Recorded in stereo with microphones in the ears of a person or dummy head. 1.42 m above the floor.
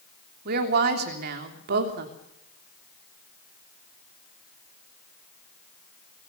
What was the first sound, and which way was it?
A woman speaking, 55° right (ahead or behind).